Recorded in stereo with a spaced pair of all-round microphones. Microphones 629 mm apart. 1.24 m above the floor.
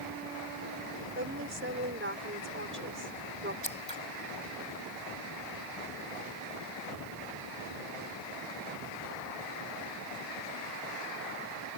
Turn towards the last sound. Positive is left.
turn(degrees=10)  # may be behind; listen again after turning